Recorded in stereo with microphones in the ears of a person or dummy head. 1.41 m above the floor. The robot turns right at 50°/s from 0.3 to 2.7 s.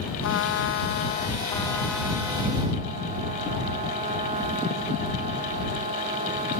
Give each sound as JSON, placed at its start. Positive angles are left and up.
{"t": 0.2, "sound": "a trumpet", "azimuth_deg": 95}